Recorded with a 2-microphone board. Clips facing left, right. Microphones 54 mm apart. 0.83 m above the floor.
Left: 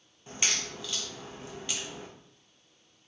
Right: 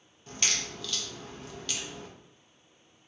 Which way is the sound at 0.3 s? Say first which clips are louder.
Even; 15° left (ahead or behind).